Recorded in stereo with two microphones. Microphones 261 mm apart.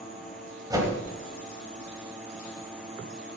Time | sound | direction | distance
0.7 | a whoosh | 15° right (ahead or behind) | 3.5 m